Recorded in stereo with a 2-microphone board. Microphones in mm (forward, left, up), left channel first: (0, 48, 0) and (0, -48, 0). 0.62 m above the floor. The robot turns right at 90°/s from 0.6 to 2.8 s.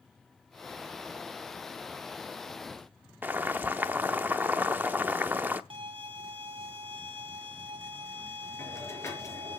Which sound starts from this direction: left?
A hiss, at 8.6 s.